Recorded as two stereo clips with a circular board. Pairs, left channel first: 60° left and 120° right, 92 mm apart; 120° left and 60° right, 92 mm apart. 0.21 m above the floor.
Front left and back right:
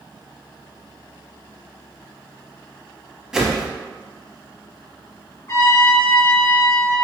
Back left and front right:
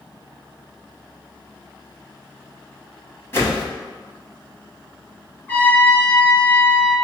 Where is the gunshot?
No gunshot in this recording.